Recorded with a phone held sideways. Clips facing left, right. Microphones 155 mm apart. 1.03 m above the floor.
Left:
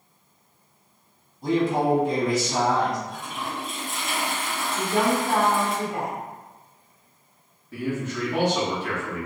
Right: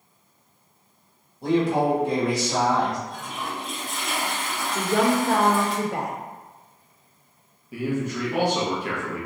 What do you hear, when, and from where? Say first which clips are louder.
1.4 s a man speaking: right 1 dB; 65° right (ahead or behind), 1.7 m
3.1 s a toilet flushing: even; centre (ahead or behind), 1.2 m
4.8 s a woman speaking: right 2 dB; 70° right (ahead or behind), 0.8 m
7.7 s a man speaking: right 2 dB; 10° right (ahead or behind), 1.5 m